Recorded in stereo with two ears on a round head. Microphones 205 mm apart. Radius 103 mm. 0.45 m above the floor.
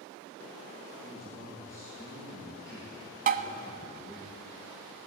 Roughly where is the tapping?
Right.